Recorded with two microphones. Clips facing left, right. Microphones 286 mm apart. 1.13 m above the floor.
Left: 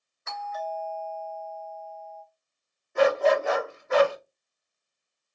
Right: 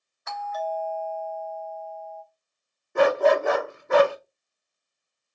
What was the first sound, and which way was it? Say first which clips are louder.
A doorbell: right 4 dB; 30° left (ahead or behind).